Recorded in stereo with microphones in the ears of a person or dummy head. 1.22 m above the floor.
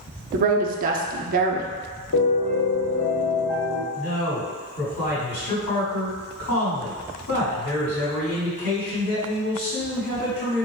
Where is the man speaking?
80° left, 2.0 m.